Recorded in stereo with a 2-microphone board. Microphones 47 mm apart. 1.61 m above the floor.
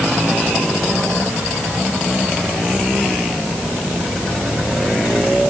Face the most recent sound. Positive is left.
No sound to turn to.